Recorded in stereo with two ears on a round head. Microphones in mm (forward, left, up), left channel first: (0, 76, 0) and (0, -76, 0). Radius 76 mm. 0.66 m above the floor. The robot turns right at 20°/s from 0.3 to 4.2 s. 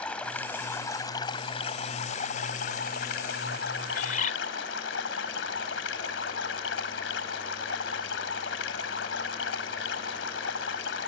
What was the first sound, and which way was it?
Running water, 5° left.